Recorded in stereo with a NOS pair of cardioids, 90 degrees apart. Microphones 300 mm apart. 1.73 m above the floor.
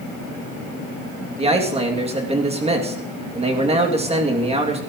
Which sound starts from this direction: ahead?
A man speaking, at 1.4 s.